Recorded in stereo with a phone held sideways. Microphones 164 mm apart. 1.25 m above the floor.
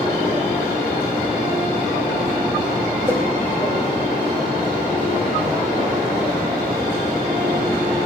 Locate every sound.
3.1 s a whoosh: 15° right (ahead or behind), 2.5 m